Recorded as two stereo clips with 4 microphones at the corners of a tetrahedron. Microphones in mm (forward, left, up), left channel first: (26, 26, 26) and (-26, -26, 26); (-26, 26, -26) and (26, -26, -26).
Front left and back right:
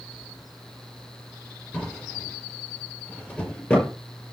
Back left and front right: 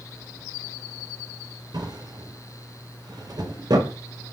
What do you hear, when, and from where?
1.7 s a drawer: 25° right, 5.5 m